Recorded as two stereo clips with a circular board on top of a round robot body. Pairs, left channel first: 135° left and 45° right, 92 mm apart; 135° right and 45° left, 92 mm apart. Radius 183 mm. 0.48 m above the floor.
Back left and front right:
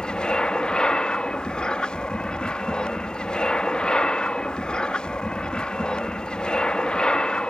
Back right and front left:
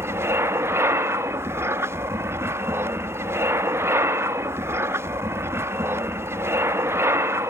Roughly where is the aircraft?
Ahead left.